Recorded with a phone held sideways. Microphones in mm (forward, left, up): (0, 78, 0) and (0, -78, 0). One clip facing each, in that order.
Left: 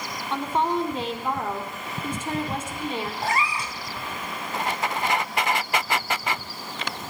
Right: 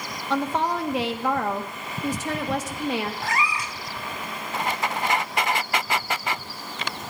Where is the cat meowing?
30° left (ahead or behind), 0.8 m.